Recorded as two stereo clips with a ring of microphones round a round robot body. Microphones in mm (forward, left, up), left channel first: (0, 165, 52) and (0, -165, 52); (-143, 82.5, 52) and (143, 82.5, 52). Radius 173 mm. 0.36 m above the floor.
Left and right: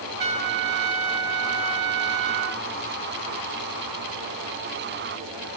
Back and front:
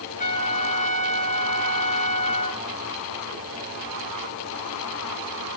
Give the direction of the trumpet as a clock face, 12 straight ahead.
4 o'clock.